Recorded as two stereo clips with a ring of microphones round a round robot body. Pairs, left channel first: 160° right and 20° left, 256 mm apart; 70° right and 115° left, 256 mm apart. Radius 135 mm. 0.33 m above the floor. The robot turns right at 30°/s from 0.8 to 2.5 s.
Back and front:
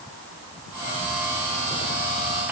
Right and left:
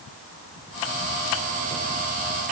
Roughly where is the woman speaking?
No woman speaking in this recording.